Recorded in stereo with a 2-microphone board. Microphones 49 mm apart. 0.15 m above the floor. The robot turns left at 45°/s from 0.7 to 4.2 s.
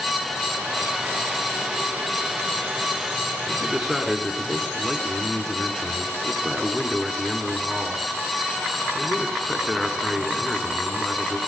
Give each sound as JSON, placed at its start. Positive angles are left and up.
{"t": 3.5, "sound": "a man speaking", "azimuth_deg": -155, "distance_m": 2.0}